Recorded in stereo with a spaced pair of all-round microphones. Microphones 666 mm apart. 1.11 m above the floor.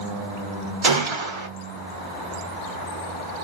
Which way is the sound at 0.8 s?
45° right (ahead or behind).